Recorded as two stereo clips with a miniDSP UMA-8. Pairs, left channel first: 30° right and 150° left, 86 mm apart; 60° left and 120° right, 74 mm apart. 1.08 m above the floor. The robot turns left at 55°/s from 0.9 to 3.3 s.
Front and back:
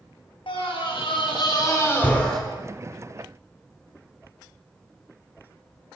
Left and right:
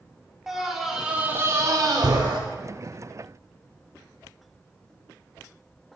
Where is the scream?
35° right, 3.5 m; by 2.4 s 115° right, 3.5 m.